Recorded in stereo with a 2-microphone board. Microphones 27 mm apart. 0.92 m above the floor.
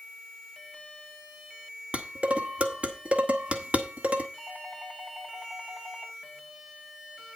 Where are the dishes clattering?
50° right (ahead or behind), 1.6 m.